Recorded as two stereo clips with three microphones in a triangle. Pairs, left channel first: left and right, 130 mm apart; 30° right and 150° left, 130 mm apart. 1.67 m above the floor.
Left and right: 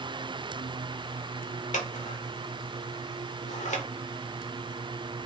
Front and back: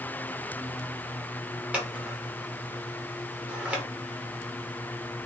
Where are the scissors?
70° left, 0.8 m.